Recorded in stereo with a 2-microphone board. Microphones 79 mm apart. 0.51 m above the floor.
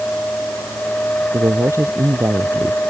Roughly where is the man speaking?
Right.